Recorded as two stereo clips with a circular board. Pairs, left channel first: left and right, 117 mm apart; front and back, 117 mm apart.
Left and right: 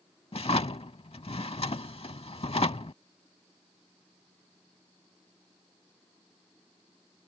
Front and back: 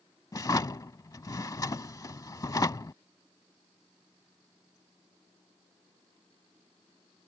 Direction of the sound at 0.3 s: 60° left.